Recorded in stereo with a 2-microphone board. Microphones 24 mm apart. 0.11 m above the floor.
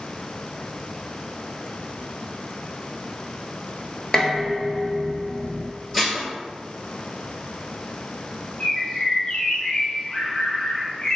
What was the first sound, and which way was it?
Dishes clattering, 20° left (ahead or behind).